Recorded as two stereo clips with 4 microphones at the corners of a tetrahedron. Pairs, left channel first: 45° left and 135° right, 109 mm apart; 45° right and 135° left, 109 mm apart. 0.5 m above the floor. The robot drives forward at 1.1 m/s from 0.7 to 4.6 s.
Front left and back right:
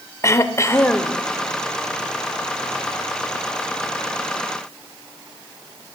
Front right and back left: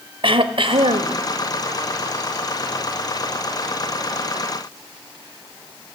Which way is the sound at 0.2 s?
105° left.